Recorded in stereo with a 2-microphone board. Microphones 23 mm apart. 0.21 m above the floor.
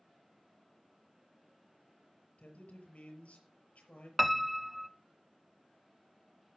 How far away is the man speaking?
About 6 m.